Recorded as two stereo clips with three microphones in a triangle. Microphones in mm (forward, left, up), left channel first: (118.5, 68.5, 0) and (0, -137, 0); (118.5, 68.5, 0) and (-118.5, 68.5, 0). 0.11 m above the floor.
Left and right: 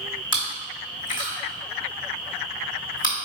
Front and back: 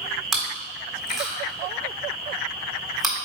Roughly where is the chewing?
Left.